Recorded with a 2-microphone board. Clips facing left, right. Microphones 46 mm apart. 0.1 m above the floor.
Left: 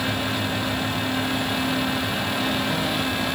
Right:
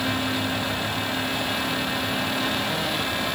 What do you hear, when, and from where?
Only background noise.